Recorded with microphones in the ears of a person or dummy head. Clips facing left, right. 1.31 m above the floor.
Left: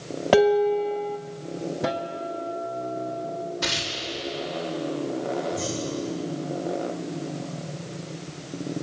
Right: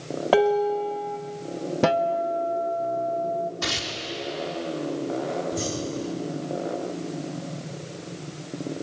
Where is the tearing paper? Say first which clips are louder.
Even; 85° right, 4 m.